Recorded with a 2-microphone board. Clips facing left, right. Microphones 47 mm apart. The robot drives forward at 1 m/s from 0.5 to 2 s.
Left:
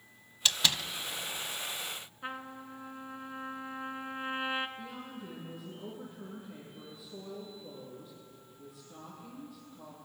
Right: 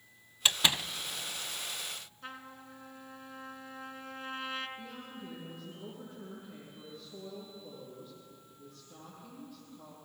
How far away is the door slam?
About 0.7 m.